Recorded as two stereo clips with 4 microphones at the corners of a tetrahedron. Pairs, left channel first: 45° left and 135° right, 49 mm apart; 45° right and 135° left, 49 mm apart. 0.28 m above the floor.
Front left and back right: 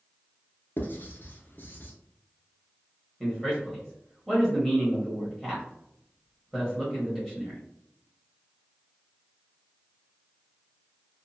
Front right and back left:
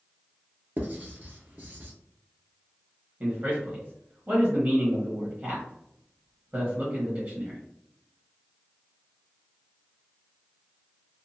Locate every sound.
0.8 s writing: 90° left, 0.9 m
3.2 s a man speaking: 130° left, 1.2 m